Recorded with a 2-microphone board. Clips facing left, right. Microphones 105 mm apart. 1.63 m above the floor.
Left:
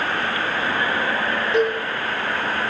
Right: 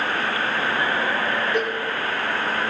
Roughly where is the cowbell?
Left.